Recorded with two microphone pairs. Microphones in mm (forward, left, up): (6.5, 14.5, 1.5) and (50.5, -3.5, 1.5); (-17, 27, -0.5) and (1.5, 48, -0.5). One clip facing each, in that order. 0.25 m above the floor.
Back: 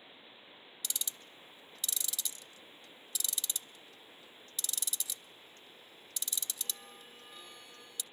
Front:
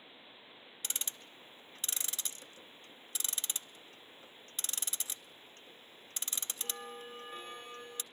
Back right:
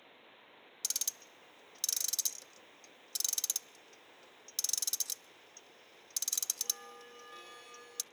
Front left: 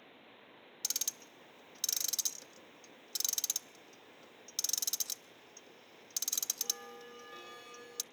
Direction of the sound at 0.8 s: 20° right.